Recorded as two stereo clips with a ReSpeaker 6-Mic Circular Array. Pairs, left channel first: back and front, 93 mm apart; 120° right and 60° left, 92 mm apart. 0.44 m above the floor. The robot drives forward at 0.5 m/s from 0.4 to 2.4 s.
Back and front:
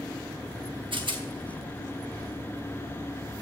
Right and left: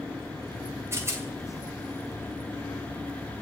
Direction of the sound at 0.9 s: Straight ahead.